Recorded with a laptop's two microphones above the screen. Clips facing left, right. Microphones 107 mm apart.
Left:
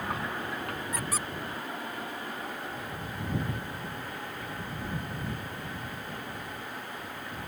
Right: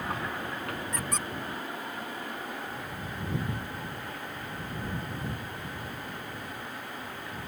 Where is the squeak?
5° left (ahead or behind).